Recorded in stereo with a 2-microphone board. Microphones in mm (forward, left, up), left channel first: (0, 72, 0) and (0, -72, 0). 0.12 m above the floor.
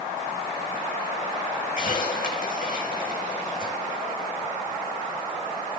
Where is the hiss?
70° left (ahead or behind), 5 m.